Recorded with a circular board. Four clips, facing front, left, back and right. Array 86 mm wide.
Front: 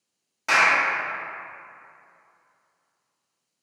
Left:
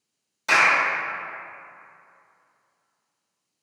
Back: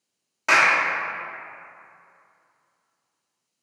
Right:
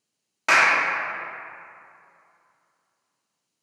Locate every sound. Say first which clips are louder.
0.5 s a clap: right 1 dB, back 1 dB; 110° right, 0.9 m